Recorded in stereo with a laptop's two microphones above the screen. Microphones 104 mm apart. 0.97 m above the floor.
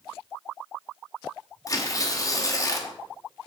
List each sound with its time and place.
1.7 s tearing paper: 35° left (ahead or behind), 1.2 m